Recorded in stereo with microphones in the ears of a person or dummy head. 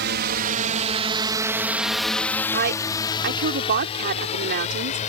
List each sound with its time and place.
0.0 s a drone: 60° right (ahead or behind); by 5.1 s 40° left (ahead or behind)
2.5 s a woman speaking: 60° right (ahead or behind)